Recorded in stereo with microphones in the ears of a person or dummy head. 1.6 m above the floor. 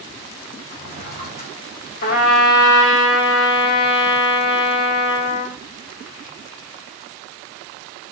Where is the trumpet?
45° left (ahead or behind), 0.9 m.